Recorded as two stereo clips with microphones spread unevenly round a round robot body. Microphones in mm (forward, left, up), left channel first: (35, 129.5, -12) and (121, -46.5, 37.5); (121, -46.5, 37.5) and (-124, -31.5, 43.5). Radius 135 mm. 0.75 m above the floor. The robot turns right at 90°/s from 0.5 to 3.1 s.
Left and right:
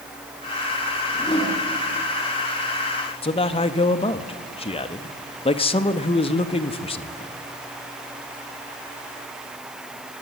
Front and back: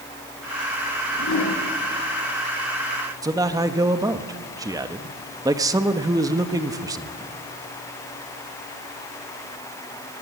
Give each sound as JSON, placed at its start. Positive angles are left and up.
{"t": 1.1, "sound": "a whoosh", "azimuth_deg": 35, "distance_m": 7.5}
{"t": 3.2, "sound": "a man speaking", "azimuth_deg": 105, "distance_m": 1.3}